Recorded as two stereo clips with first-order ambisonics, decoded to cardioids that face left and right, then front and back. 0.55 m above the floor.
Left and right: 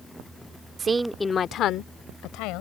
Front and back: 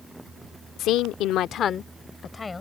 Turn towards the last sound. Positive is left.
turn(degrees=75)